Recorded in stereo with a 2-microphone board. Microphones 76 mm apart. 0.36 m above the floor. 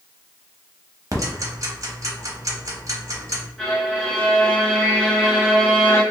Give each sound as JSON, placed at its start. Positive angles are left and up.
{"t": 1.1, "sound": "ticking", "side_deg": -45, "distance_m": 0.8}
{"t": 3.6, "sound": "a violin", "side_deg": 5, "distance_m": 1.4}